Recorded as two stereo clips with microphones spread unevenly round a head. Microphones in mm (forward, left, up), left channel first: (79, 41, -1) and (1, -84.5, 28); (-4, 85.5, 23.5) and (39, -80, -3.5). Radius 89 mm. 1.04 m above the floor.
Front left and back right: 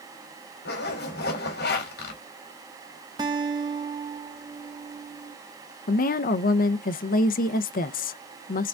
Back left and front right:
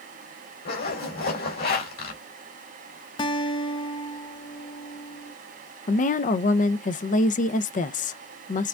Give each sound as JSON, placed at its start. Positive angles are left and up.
{"t": 0.7, "sound": "a zipper", "azimuth_deg": 70, "distance_m": 3.5}
{"t": 3.2, "sound": "a guitar", "azimuth_deg": 170, "distance_m": 0.6}
{"t": 5.9, "sound": "a woman speaking", "azimuth_deg": 55, "distance_m": 0.6}